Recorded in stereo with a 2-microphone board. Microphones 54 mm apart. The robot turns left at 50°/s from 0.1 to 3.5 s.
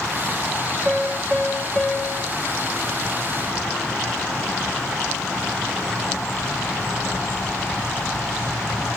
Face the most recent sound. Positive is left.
turn(degrees=75)